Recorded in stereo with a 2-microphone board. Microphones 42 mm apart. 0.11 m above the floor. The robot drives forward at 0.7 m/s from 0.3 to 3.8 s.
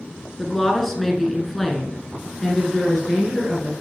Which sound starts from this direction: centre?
A woman speaking, at 0.4 s.